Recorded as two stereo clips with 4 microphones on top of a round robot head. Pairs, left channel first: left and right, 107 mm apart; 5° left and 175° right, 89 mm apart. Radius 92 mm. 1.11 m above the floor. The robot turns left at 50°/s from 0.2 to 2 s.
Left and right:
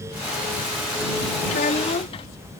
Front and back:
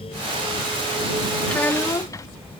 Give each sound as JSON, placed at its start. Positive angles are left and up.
{"t": 1.5, "sound": "a child speaking", "azimuth_deg": 85}